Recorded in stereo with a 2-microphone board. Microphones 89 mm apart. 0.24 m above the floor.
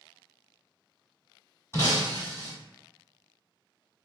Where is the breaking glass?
30° left (ahead or behind), 1.2 m.